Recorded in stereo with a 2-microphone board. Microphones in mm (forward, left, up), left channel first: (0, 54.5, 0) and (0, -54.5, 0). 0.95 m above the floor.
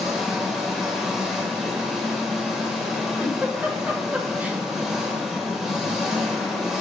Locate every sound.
0.0 s an engine running: 5° right (ahead or behind), 0.9 m
3.2 s a giggle: 15° right (ahead or behind), 0.7 m